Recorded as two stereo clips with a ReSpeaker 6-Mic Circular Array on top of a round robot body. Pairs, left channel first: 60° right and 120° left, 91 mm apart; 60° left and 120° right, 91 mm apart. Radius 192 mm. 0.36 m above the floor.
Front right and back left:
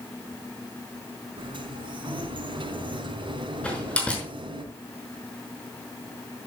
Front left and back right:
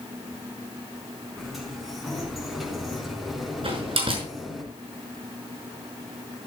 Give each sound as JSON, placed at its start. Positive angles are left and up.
{"t": 1.4, "sound": "a sliding door", "azimuth_deg": 150, "distance_m": 4.5}
{"t": 3.6, "sound": "a door slam", "azimuth_deg": -135, "distance_m": 5.5}